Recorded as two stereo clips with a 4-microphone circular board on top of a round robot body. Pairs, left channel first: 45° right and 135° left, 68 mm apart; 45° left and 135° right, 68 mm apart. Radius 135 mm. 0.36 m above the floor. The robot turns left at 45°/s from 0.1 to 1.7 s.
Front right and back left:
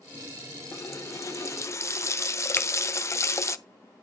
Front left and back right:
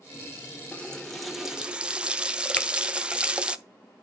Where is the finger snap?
10° right, 0.8 m.